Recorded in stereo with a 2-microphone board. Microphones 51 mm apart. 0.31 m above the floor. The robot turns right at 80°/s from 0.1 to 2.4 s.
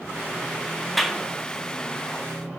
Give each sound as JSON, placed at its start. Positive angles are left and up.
{"t": 1.0, "sound": "a clap", "side_deg": 0, "distance_m": 0.8}